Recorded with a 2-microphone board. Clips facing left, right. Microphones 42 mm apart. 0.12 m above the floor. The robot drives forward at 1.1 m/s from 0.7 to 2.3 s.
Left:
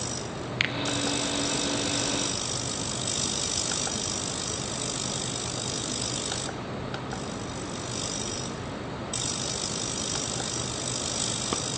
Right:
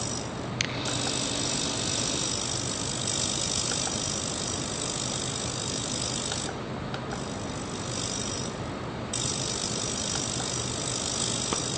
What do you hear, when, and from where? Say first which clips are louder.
0.6 s a finger snap: left 5 dB; 25° left (ahead or behind), 1.4 m